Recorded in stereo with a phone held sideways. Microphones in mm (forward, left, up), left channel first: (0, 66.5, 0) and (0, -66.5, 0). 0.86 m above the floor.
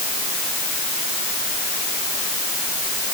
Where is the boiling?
No boiling in this recording.